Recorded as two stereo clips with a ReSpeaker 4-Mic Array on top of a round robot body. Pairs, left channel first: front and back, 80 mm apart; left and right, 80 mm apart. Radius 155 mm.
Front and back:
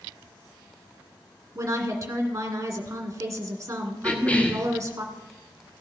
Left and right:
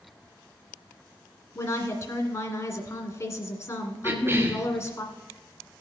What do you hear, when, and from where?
1.6 s a woman speaking: 125° left, 2 m
4.0 s a cough: 60° right, 1.5 m